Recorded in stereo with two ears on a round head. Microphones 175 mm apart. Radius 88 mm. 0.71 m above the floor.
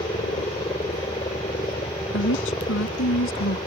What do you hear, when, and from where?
0.0 s a helicopter: 20° left (ahead or behind)
2.1 s a woman speaking: 70° left (ahead or behind)